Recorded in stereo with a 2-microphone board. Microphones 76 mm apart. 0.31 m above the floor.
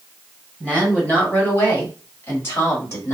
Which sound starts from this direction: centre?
A woman speaking, at 0.6 s.